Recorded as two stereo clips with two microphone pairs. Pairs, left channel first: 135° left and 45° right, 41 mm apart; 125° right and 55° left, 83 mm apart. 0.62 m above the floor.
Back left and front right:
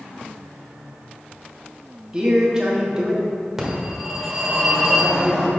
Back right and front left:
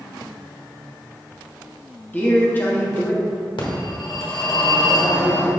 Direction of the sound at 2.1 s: 95° right.